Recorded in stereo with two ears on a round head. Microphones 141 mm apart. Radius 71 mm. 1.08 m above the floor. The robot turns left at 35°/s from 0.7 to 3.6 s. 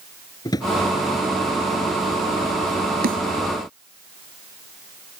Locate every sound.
0.5 s a drawer: 25° left (ahead or behind); by 0.7 s 30° left (ahead or behind)
3.0 s a snare drum: 70° right (ahead or behind); by 3.2 s 65° right (ahead or behind)